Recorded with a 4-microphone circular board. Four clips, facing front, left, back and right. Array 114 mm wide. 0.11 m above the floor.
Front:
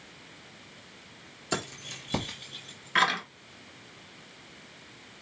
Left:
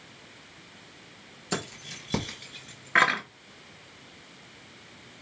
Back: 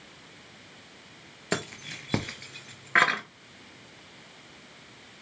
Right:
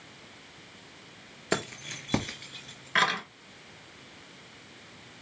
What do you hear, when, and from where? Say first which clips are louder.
1.5 s keys jangling: right 3 dB, back 2 dB; 135° right, 1.7 m; by 3.2 s 125° left, 1.4 m